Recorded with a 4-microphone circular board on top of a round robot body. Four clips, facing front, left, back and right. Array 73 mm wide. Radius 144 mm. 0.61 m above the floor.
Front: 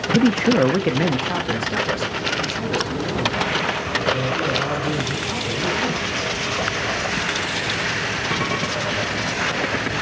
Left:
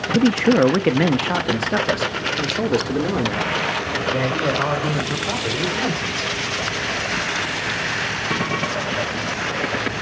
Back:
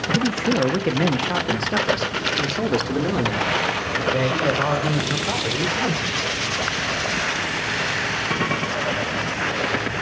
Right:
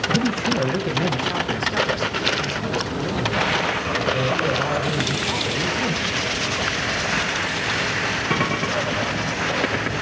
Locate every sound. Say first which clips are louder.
0.1 s a man speaking: left 10 dB, front 6 dB; 45° left, 0.9 m; by 6.3 s 135° left, 4 m